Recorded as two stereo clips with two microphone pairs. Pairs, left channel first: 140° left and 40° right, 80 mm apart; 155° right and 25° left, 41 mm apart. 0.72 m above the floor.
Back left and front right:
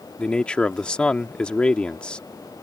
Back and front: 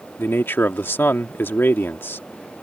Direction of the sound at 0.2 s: 145° right.